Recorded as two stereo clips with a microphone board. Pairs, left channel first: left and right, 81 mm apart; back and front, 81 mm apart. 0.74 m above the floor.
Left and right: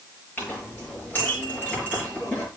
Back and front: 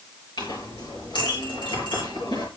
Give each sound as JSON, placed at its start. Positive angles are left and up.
{"t": 0.4, "sound": "a clink", "azimuth_deg": 155, "distance_m": 7.0}